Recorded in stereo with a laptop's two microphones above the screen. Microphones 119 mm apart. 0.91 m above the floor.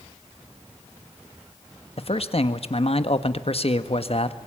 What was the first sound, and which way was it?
A man speaking, 55° left (ahead or behind).